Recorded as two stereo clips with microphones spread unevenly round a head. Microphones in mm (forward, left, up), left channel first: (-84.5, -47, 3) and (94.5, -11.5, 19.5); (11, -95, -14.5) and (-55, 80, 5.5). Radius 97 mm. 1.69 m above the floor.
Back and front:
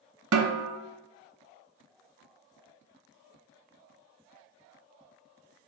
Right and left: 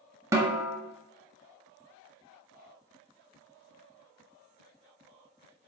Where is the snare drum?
35° left, 0.5 m.